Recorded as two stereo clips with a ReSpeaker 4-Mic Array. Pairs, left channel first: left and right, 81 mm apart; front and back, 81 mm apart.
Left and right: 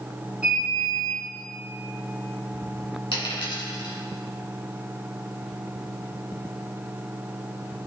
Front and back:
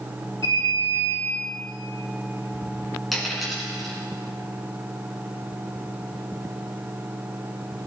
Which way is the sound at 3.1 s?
90° left.